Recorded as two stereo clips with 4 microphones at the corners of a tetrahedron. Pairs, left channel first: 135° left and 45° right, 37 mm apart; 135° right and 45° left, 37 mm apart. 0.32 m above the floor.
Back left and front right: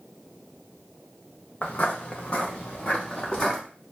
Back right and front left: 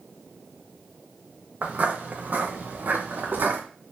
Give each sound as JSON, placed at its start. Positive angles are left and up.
{"t": 1.6, "sound": "footsteps", "azimuth_deg": 85, "distance_m": 1.9}